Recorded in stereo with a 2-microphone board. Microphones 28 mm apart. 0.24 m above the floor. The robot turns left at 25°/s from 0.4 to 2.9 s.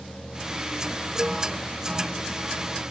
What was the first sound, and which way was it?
A cowbell, 10° right (ahead or behind).